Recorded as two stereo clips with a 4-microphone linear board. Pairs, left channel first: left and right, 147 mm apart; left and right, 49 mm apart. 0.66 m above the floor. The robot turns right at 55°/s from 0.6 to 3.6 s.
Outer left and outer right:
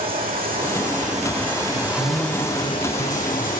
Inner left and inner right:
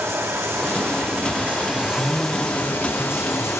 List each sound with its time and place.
0.0 s running water: 85° right, 6.5 m; by 3.6 s 80° left, 6.5 m
1.7 s a man speaking: 140° right, 5 m; by 3.5 s 40° right, 5 m